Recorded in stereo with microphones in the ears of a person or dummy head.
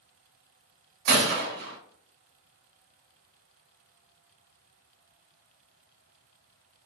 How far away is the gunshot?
About 1.1 m.